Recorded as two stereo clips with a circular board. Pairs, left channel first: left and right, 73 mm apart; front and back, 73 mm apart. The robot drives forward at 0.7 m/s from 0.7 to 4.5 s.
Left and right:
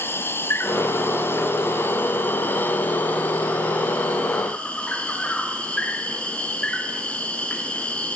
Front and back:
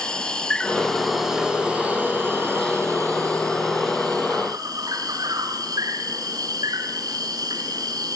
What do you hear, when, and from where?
0.0 s an insect: 70° left, 1.5 m; by 8.2 s 165° left, 3 m